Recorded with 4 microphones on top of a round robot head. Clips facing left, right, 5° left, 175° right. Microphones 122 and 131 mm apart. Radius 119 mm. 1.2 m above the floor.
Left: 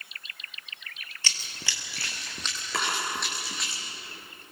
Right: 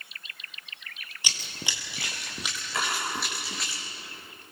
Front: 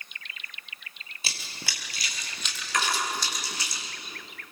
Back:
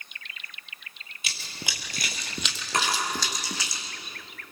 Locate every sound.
1.2 s running footsteps: 30° right, 1.2 m; by 3.7 s straight behind, 3.5 m
2.7 s a drawer: 125° left, 6.5 m